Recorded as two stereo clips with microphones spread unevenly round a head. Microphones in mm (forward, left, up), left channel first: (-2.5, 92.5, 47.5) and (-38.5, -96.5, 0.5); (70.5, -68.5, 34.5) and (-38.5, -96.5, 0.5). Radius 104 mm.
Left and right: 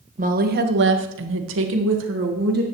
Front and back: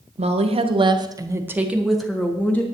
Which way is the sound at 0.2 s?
145° right.